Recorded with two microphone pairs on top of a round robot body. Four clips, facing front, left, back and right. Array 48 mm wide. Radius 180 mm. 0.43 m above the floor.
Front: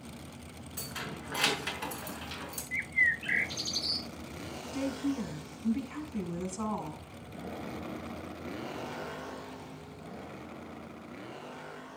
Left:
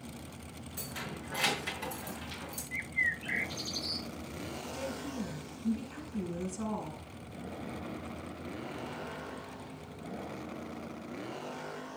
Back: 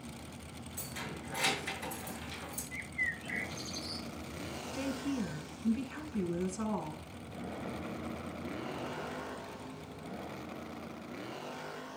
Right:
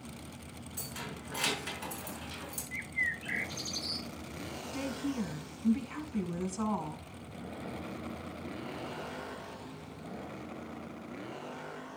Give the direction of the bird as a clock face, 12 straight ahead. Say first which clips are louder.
Left 2 dB, front 9 dB; 12 o'clock.